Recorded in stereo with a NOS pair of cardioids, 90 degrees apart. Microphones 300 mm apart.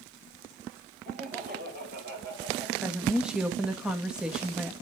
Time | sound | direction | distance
1.1 | laughter | 30° right | 6.5 m
2.8 | a woman speaking | 5° right | 2 m